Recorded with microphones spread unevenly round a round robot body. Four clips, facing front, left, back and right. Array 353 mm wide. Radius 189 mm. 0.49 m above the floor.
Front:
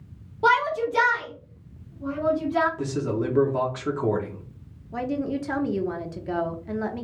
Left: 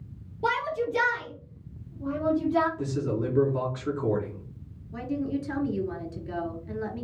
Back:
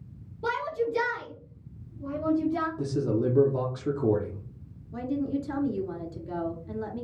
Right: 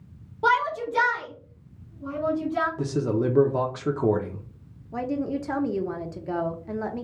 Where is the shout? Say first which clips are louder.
Right 4 dB, front 7 dB; 25° left, 1.4 m; by 2.7 s 125° left, 1.8 m.